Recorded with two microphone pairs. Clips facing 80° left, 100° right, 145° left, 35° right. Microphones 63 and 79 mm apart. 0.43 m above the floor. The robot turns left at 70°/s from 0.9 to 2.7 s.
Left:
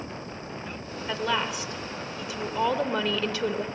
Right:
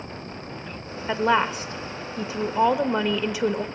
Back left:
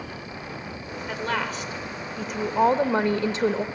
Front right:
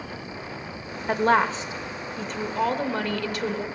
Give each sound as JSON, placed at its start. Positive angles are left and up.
{"t": 1.1, "sound": "a woman speaking", "azimuth_deg": -50, "distance_m": 1.3}